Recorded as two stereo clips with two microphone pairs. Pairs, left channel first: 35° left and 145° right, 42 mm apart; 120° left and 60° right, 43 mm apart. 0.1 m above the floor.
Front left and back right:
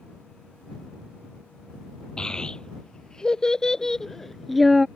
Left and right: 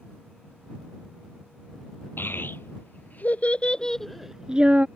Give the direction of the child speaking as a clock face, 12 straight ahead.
9 o'clock.